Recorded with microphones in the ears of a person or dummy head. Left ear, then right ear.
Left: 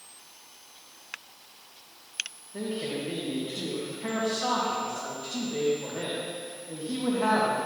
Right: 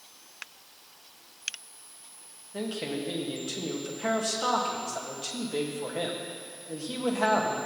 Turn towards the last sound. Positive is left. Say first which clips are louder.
# even
turn(degrees=-75)  # may be behind; listen again after turning